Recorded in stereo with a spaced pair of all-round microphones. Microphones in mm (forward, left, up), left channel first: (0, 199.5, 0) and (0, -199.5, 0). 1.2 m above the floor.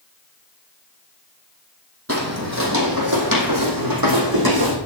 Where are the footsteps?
35° right (ahead or behind), 3 m; by 4.8 s 65° right (ahead or behind), 4.5 m.